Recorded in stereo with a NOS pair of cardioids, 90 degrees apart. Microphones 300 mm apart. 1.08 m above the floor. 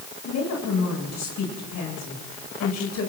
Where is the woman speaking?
60° left, 9 m.